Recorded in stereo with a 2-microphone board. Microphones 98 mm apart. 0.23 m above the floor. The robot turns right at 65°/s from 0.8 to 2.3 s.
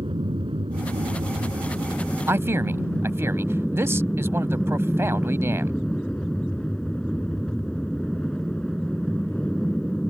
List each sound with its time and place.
0.0 s an aircraft: 85° right; by 10.1 s 10° left
2.3 s a man speaking: 25° right (ahead or behind)